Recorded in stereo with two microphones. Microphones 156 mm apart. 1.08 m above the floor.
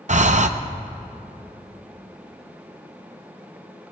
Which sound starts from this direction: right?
Breathing, at 0.1 s.